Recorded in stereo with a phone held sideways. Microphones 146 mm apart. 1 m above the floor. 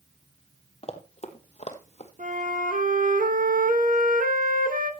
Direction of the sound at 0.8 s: 45° left (ahead or behind).